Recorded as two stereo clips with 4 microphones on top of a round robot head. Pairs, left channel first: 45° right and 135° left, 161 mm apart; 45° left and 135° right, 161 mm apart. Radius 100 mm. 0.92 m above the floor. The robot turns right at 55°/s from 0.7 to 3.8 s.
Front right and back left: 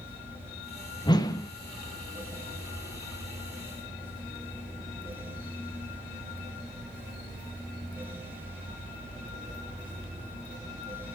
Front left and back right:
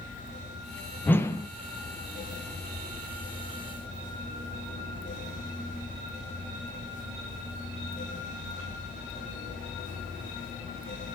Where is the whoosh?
20° right, 0.9 m; by 1.5 s 5° left, 0.9 m.